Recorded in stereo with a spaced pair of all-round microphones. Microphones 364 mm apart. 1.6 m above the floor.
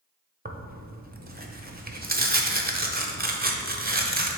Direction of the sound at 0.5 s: 25° right (ahead or behind).